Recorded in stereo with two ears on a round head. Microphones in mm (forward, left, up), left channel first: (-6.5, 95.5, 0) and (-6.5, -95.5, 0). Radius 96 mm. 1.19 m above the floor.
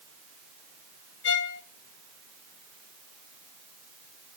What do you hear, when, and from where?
1.2 s a violin: 60° left (ahead or behind), 0.9 m